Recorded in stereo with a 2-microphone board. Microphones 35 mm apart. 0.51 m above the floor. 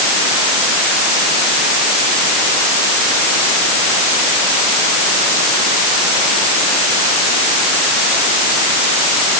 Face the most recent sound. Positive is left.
No sound to turn to.